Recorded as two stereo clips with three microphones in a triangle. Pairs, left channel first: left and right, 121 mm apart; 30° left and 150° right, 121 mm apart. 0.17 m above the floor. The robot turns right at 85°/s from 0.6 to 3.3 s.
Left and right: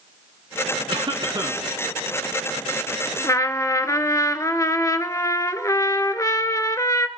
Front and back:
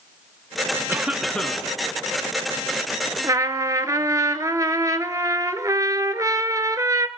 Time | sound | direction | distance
0.9 | a cough | 90° right | 1.7 m
3.2 | a trumpet | 150° left | 0.6 m